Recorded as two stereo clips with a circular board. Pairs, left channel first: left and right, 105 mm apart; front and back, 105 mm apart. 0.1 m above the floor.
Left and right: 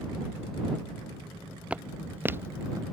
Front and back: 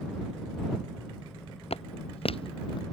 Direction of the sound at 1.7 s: 10° right.